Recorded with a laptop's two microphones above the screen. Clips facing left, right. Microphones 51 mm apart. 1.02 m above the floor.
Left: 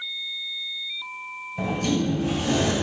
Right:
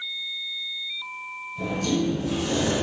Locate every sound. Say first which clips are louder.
1.6 s a sliding door: left 1 dB; 55° left (ahead or behind), 2.0 m